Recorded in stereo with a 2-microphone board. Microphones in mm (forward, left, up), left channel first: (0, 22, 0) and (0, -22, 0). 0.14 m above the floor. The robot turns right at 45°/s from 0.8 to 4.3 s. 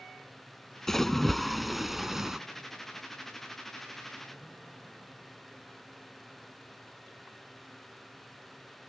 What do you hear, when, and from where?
0.9 s a splash: 10° left (ahead or behind); by 2.4 s 10° right (ahead or behind)